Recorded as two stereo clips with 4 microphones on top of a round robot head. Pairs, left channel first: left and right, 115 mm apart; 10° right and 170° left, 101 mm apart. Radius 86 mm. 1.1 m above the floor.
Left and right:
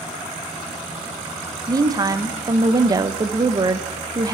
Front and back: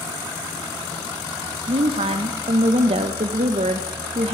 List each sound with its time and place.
1.7 s a woman speaking: 150° right, 0.6 m